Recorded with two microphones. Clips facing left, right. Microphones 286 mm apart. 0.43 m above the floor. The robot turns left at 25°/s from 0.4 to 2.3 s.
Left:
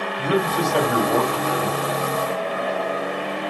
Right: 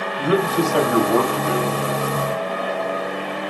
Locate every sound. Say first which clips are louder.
0.2 s a man speaking: right 3 dB; 170° right, 2 m; by 1.8 s 155° left, 2 m